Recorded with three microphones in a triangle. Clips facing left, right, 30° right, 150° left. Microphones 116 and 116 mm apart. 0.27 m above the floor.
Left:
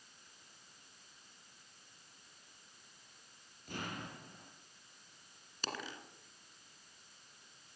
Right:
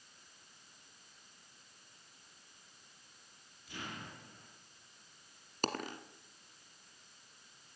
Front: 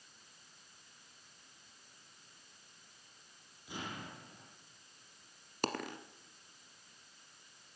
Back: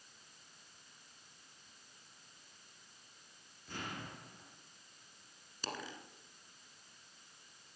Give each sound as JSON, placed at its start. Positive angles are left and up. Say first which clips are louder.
{"t": 3.7, "sound": "an explosion", "louder": "left 3 dB, front 1 dB", "azimuth_deg": 50, "distance_m": 4.5}
{"t": 5.6, "sound": "a dropped coin", "louder": "right 6 dB, front 7 dB", "azimuth_deg": -55, "distance_m": 1.3}